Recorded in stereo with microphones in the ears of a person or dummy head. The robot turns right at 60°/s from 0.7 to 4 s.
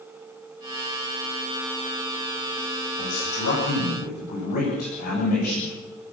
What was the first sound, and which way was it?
A man speaking, 75° left.